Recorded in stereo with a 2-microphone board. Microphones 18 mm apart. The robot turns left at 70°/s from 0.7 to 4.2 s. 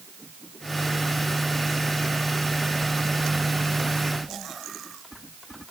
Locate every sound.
Only background noise.